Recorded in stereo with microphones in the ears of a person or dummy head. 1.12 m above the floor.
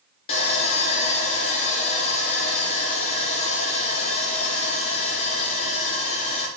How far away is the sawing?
About 1.7 m.